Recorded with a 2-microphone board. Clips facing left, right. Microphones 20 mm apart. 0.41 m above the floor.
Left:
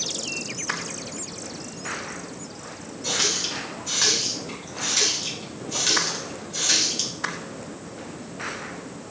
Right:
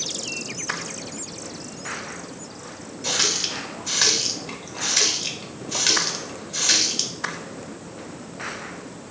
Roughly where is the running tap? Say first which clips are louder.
Right 2 dB; right.